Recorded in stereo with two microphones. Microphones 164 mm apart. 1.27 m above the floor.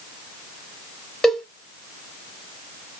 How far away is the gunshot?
No gunshot in this recording.